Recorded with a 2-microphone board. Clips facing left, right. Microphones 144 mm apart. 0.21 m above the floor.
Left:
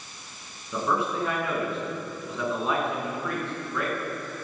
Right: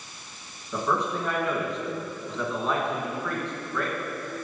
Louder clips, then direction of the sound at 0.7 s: Even; 5° left (ahead or behind).